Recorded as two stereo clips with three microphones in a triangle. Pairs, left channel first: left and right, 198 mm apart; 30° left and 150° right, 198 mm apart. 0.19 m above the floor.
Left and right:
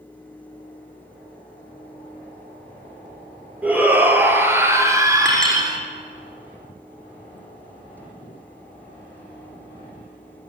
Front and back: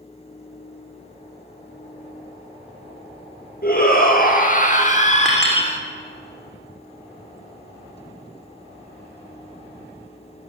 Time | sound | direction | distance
3.6 | a shout | 10° right | 5 m
5.2 | a clink | 115° left | 7.5 m